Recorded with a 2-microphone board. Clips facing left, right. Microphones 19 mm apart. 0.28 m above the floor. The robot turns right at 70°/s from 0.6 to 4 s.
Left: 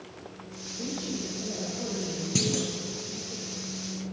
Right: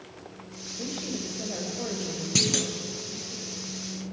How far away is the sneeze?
No sneeze in this recording.